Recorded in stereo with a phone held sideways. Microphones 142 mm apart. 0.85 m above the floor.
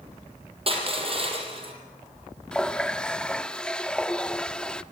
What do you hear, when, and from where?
0.7 s crushing: 40° right (ahead or behind), 5.5 m
2.5 s a running tap: 5° left (ahead or behind), 0.8 m